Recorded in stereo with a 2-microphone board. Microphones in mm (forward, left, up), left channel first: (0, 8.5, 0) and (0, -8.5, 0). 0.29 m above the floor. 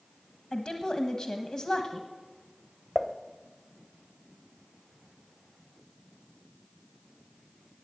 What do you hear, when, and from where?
0.5 s a woman speaking: 45° left (ahead or behind), 1.3 m
3.0 s dishes clattering: 10° right (ahead or behind), 0.9 m